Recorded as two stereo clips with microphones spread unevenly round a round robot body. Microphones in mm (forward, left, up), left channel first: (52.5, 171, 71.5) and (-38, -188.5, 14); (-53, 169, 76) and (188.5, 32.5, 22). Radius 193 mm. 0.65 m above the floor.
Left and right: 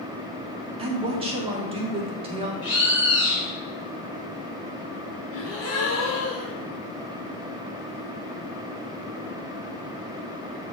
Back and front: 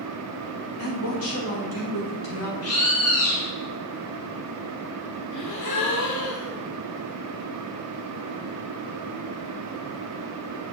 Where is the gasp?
130° left, 1.3 m.